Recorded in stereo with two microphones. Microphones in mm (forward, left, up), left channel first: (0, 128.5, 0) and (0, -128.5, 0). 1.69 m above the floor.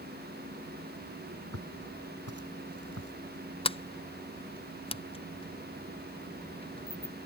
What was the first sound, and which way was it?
Footsteps, 70° right (ahead or behind).